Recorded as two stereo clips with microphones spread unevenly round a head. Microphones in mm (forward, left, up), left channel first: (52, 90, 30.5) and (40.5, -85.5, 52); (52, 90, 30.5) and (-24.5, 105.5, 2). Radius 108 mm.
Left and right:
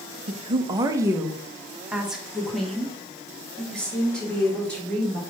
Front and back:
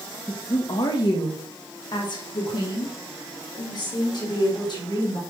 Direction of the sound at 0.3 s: 50° right.